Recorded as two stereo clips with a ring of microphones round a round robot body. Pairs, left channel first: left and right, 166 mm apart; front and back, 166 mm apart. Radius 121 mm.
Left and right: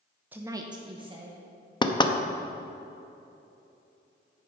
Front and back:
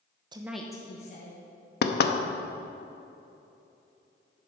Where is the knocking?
25° left, 0.8 m.